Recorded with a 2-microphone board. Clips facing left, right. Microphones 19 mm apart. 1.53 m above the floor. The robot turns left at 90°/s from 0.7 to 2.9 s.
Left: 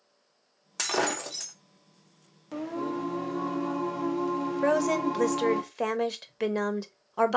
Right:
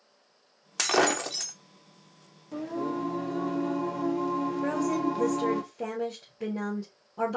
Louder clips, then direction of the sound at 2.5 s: Even; 55° left.